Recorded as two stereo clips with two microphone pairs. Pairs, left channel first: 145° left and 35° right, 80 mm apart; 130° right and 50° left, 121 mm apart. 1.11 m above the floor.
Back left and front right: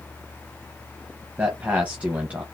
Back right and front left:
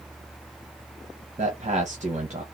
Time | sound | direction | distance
1.4 | a man speaking | 40° left | 0.9 m